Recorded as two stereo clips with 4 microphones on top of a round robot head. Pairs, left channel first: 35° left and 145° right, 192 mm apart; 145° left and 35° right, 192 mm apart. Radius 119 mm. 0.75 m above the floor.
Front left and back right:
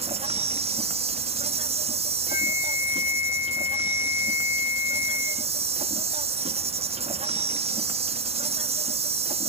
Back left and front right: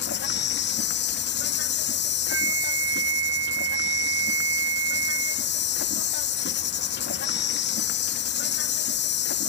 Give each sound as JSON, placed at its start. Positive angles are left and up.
{"t": 0.0, "sound": "an insect", "azimuth_deg": 160}
{"t": 2.3, "sound": "a flute", "azimuth_deg": -20}